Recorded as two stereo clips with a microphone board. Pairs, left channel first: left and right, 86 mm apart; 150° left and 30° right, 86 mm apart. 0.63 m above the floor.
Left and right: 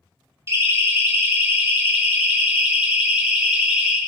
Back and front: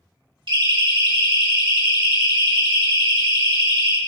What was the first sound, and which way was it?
A siren, 35° right.